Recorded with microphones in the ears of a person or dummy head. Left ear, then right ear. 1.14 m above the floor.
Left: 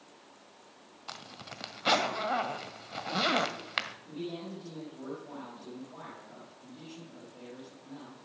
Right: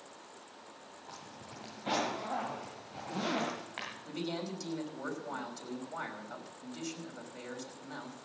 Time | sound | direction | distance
1.1 | a zipper | 60° left (ahead or behind) | 1.6 m
4.0 | a man speaking | 65° right (ahead or behind) | 5.5 m